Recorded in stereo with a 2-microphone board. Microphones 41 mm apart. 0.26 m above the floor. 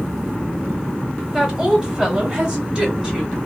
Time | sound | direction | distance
1.3 | a woman speaking | 10° right (ahead or behind) | 1.3 m